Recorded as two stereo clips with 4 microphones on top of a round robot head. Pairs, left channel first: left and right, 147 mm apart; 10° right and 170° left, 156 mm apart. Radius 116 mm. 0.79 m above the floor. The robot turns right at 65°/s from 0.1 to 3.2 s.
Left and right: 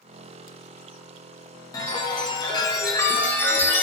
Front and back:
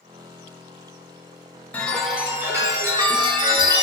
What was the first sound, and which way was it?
A chime, 65° left.